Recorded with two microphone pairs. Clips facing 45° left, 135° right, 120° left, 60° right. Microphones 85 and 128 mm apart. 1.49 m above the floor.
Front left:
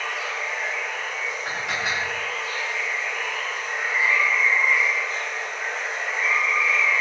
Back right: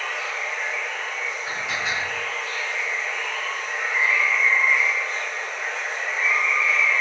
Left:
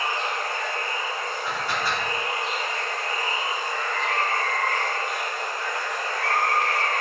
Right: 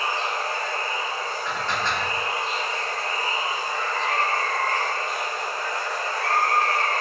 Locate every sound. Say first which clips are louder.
0.0 s running water: even, right 1 dB; 40° right, 0.8 m
1.4 s dishes clattering: front left 1 dB, even; 40° left, 1.2 m